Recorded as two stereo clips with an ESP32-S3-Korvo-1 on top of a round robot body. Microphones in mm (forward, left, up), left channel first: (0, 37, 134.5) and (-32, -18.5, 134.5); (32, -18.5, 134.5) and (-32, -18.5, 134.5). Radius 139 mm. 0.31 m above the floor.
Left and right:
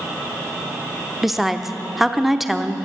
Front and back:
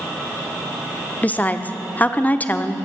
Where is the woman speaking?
35° right, 0.9 m.